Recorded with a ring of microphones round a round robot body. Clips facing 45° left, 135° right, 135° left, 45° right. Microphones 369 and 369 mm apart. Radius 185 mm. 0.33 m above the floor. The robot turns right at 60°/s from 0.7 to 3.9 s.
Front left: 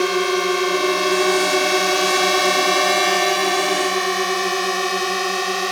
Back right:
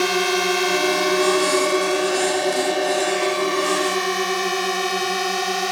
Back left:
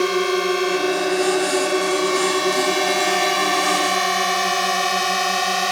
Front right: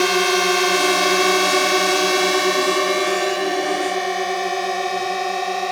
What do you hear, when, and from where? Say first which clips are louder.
0.0 s a drone: front left 2 dB, even; 90° right; by 5.7 s 145° left